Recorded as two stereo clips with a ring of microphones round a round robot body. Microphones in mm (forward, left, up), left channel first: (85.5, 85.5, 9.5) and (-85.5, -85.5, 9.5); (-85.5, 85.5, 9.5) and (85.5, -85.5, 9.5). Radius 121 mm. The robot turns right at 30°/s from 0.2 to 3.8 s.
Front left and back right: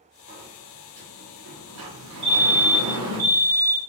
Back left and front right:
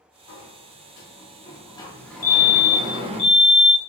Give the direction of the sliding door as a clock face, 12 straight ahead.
7 o'clock.